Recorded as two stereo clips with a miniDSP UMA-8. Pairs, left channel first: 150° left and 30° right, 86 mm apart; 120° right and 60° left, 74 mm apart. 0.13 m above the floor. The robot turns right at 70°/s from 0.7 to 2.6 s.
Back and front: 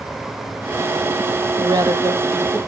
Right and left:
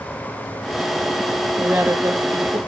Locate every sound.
1.6 s a woman speaking: 15° right, 3 m; by 2.6 s 60° left, 3 m